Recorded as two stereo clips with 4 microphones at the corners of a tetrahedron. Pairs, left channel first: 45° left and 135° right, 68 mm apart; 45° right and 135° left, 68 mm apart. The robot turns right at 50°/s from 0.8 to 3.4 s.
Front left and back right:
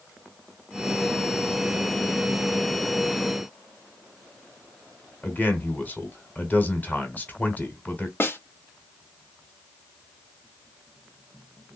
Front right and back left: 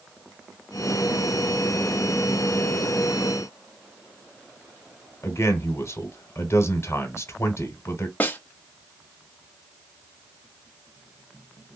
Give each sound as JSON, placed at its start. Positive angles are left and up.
{"t": 5.2, "sound": "a man speaking", "azimuth_deg": -10, "distance_m": 1.5}
{"t": 8.2, "sound": "a snare drum", "azimuth_deg": 5, "distance_m": 0.8}